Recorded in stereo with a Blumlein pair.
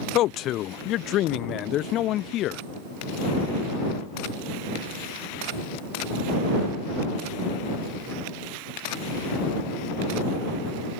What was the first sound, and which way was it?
A man speaking, 35° left.